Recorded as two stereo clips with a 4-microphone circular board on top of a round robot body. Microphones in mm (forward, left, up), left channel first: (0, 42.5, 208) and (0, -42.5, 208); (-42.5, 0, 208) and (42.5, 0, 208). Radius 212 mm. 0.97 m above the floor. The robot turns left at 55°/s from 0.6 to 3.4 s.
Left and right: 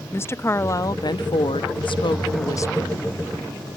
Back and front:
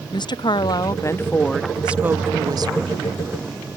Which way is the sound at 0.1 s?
150° left.